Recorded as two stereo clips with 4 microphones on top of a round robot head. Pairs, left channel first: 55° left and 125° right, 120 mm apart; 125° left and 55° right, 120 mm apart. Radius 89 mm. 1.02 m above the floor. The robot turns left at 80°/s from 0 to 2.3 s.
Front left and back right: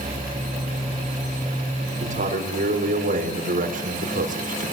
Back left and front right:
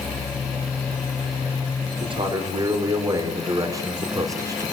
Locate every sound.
2.0 s a man speaking: 95° right, 4.5 m; by 4.7 s 115° right, 4.5 m